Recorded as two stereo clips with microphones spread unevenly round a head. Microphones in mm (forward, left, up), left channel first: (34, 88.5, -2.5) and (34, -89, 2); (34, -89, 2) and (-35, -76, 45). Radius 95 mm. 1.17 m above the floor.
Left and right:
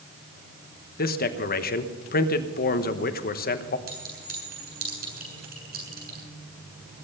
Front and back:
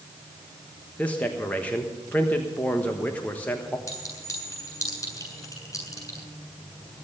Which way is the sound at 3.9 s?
55° right.